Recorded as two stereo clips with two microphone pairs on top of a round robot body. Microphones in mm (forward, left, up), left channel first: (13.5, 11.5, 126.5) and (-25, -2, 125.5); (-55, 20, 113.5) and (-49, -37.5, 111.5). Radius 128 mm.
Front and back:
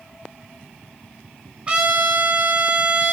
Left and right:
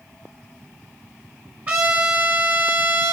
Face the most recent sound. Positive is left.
turn(degrees=-125)